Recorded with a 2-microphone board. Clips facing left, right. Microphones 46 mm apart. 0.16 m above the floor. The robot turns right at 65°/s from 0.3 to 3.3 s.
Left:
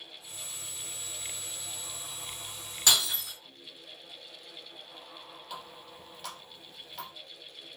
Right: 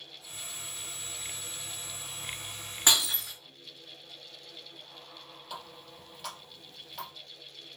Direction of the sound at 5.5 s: Centre (ahead or behind).